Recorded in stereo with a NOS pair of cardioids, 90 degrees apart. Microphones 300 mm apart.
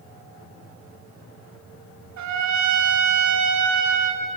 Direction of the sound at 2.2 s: 65° right.